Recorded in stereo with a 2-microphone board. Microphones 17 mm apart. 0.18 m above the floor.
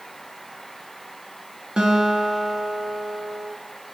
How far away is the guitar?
About 0.8 m.